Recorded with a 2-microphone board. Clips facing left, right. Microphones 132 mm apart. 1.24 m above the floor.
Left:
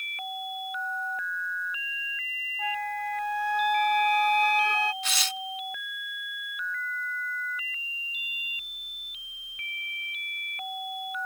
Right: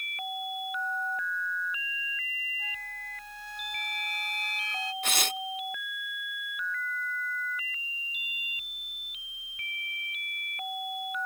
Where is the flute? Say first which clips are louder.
Left 14 dB; 70° left (ahead or behind).